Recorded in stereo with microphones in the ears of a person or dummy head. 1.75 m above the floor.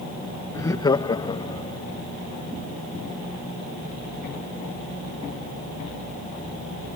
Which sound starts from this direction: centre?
Laughter, at 0.5 s.